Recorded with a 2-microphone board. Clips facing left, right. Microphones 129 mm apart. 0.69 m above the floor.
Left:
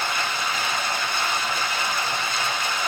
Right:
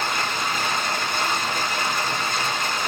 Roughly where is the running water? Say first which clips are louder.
Right 1 dB; right.